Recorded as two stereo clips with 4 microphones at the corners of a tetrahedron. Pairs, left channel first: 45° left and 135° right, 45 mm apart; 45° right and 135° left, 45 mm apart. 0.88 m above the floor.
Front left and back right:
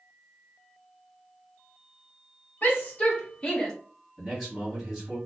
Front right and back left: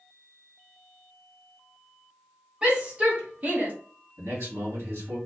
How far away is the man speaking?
About 1.9 m.